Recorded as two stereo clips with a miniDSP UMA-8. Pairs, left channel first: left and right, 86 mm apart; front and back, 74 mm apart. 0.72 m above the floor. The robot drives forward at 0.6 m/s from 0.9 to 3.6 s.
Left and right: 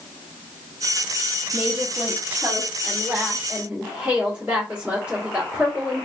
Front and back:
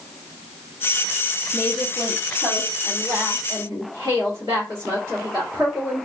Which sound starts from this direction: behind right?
A woman speaking, at 1.5 s.